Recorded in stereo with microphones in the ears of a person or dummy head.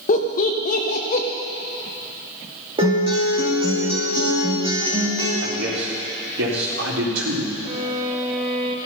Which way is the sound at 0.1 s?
45° left (ahead or behind).